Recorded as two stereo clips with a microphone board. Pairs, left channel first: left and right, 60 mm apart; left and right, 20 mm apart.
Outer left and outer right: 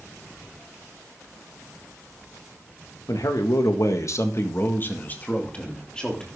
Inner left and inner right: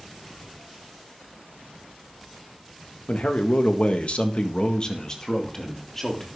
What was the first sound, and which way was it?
A man speaking, 65° left (ahead or behind).